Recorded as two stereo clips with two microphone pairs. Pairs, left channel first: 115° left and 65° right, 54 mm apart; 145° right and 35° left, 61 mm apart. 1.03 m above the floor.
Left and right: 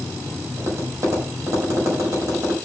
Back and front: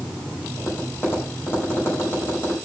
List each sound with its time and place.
0.6 s tapping: 95° right, 4.5 m